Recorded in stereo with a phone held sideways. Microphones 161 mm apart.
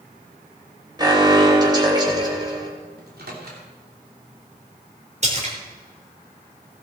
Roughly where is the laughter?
I don't hear laughter.